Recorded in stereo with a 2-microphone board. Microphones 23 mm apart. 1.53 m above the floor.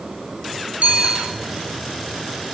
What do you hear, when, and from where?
0.8 s a bicycle bell: 70° right (ahead or behind), 7 m